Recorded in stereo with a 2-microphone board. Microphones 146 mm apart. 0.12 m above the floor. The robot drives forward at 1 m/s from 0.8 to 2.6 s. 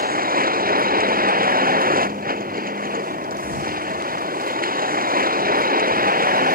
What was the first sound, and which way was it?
A vehicle, 85° right.